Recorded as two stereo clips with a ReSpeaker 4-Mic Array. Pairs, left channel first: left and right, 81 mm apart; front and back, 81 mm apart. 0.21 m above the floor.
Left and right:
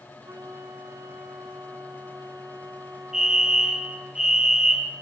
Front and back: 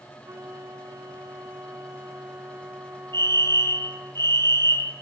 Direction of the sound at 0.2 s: 135° right.